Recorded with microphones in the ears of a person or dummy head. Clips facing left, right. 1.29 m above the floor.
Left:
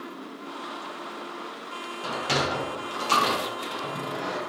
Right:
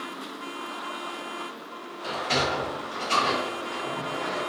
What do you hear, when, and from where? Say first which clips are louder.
2.0 s a sliding door: even; 75° left (ahead or behind), 0.7 m